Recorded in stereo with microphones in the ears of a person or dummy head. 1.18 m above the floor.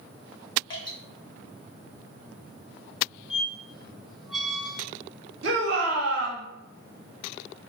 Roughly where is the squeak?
Centre.